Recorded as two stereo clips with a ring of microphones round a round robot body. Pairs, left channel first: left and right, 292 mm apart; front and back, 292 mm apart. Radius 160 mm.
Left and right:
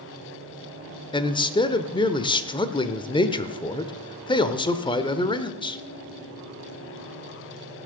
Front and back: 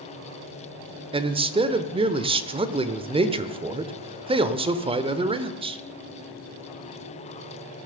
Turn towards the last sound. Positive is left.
turn(degrees=140)